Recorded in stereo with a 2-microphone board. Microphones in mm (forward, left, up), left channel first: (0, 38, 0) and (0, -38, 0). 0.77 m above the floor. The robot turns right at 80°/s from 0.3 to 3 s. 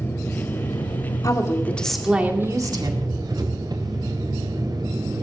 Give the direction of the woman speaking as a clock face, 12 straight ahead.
8 o'clock.